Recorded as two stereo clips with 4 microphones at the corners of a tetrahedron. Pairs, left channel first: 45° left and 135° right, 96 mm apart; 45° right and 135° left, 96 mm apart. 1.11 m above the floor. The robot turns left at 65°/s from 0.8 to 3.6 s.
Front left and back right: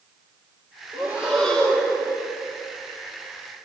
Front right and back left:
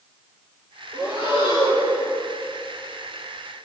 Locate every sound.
0.9 s breathing: 165° left, 4 m; by 2.0 s 95° left, 4 m